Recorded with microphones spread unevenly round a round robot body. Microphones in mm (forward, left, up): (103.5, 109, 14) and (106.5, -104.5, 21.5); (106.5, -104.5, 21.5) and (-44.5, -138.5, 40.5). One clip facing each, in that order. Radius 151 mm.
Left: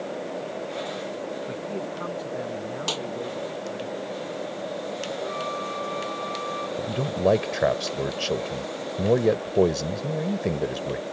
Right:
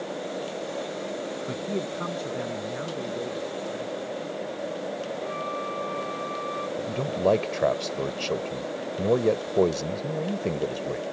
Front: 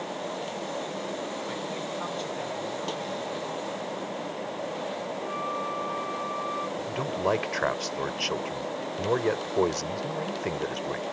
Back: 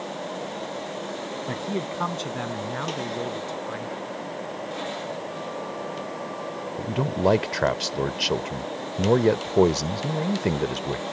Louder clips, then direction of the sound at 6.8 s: Left 2 dB, back 7 dB; 165° left.